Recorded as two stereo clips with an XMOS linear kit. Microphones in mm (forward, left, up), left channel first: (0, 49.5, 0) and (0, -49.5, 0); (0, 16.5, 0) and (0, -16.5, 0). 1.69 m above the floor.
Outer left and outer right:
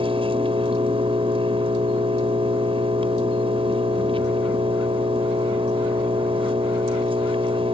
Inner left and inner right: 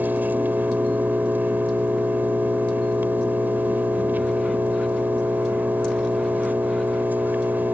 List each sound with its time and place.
0.0 s an engine running: 75° right (ahead or behind)